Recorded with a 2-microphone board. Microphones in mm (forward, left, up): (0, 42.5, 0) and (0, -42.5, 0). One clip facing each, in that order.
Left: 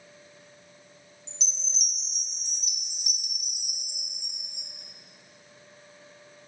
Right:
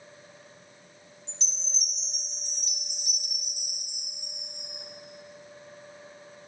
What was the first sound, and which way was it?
A chime, 20° left (ahead or behind).